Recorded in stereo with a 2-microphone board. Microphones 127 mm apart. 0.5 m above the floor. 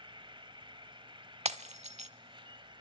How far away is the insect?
About 1.3 m.